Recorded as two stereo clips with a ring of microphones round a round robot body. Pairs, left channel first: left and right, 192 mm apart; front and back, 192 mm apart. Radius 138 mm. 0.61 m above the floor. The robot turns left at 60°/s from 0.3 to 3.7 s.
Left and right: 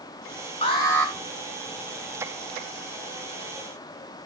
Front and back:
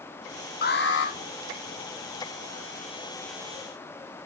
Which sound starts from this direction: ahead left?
An alarm, at 0.6 s.